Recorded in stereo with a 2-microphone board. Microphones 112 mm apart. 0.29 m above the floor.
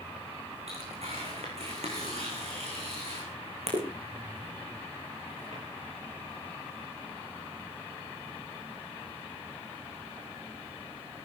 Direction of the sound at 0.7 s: 70° right (ahead or behind).